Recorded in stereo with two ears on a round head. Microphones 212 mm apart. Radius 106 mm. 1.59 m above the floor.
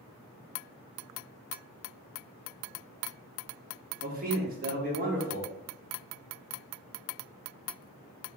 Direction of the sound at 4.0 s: 40° right (ahead or behind).